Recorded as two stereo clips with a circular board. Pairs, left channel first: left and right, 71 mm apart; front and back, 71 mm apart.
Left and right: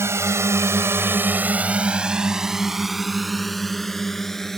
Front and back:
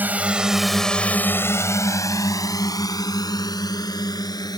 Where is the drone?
125° right; by 4.6 s 5° left.